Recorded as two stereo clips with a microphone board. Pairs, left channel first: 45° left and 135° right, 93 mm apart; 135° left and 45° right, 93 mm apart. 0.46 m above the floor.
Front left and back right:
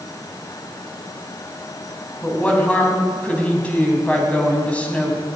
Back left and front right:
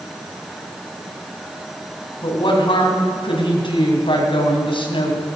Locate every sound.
2.2 s a woman speaking: 120° left, 3 m